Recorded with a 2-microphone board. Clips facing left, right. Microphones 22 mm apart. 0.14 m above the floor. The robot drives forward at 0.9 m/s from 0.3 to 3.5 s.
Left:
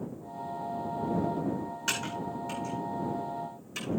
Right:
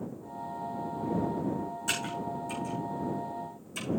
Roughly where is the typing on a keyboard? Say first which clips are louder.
Left 1 dB; left.